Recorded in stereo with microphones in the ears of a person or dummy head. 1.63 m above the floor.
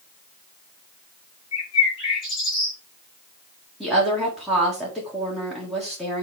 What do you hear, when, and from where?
1.5 s a bird: 25° left (ahead or behind), 5 m
3.8 s a woman speaking: centre (ahead or behind), 1.7 m